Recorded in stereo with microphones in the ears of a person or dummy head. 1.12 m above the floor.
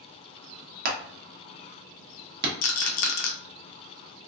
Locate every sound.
0.8 s hammering: 55° right (ahead or behind), 1.0 m
2.6 s a rattle: 50° left (ahead or behind), 0.5 m